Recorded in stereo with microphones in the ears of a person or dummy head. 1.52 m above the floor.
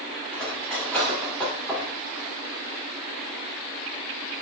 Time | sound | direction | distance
0.3 | cutlery clinking | 10° left (ahead or behind) | 3 m